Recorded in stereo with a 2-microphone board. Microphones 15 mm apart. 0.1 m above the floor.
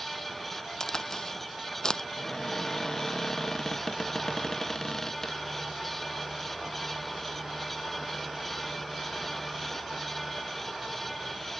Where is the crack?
35° left (ahead or behind).